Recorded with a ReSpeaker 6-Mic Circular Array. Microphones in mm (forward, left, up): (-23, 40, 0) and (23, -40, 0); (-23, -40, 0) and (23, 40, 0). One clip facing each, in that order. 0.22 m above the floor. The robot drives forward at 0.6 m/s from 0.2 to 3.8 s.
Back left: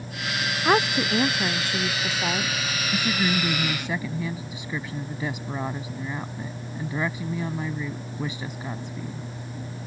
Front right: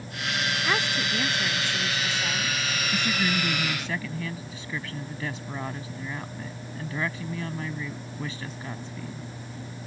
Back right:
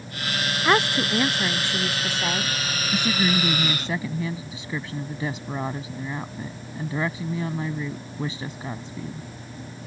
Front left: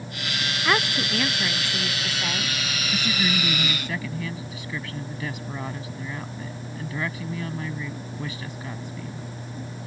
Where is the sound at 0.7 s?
170° left.